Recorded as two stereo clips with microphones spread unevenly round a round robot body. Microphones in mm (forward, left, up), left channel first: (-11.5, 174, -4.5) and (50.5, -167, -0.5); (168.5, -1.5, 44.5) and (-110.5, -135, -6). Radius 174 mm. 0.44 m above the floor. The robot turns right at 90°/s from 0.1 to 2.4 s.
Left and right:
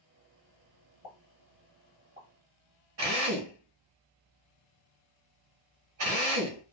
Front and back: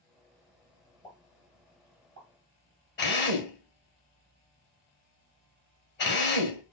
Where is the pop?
105° left, 1.1 m; by 2.3 s 145° right, 1.1 m.